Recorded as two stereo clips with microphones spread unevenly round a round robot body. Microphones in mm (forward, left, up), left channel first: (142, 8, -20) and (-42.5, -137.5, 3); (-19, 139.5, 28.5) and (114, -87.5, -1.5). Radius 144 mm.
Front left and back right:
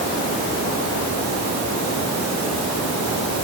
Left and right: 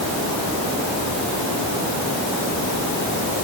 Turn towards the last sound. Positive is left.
No sound to turn to.